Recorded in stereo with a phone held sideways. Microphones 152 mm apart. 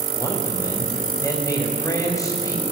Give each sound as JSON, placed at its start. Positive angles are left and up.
{"t": 0.1, "sound": "a man speaking", "side_deg": 20, "distance_m": 6.5}